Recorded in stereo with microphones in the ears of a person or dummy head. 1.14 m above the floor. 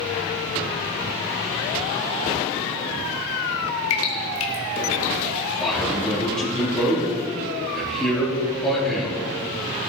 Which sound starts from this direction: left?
Dripping, at 3.9 s.